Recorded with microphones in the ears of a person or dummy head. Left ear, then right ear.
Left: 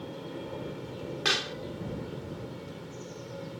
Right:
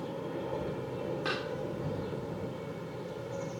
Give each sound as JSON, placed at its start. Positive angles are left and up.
{"t": 0.0, "sound": "an aircraft", "side_deg": -20}
{"t": 1.2, "sound": "a pop", "side_deg": 30}